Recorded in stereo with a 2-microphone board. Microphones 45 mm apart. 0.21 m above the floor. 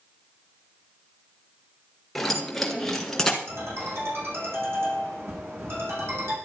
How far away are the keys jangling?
About 3 m.